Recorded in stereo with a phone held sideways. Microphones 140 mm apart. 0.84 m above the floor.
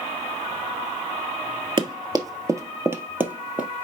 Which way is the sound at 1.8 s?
35° right (ahead or behind).